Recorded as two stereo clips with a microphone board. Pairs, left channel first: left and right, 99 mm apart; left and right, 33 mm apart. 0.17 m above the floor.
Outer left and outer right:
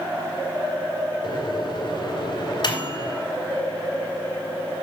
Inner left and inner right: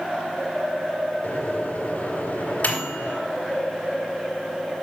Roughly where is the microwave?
Left.